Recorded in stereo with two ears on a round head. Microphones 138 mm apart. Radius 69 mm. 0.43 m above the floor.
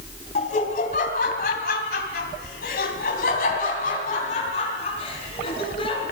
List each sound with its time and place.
0.3 s laughter: 55° left (ahead or behind), 3 m; by 6.0 s 40° left (ahead or behind), 4.5 m